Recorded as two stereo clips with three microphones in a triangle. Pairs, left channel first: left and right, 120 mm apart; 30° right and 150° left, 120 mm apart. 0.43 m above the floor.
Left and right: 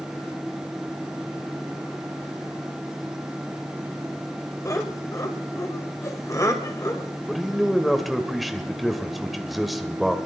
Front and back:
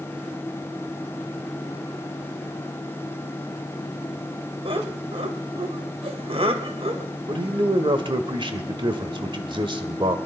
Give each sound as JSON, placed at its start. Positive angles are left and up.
{"t": 4.7, "sound": "laughter", "azimuth_deg": 145, "distance_m": 2.0}
{"t": 7.3, "sound": "a man speaking", "azimuth_deg": 180, "distance_m": 1.6}